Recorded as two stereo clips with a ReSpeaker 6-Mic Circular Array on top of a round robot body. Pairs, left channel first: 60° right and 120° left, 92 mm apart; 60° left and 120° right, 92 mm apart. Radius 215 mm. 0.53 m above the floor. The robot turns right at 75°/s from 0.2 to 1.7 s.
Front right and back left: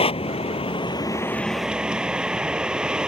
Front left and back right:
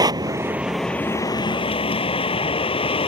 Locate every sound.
0.0 s a vehicle: 75° right; by 3.1 s 40° left